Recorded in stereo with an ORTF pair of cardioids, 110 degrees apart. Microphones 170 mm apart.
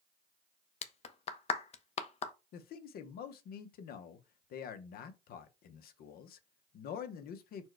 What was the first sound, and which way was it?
A clap, 40° left.